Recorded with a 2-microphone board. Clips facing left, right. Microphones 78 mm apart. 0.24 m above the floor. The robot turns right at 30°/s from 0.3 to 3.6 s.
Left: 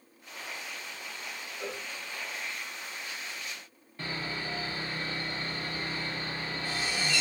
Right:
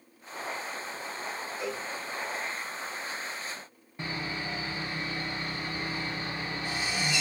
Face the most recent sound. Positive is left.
turn(degrees=-20)  # may be behind; listen again after turning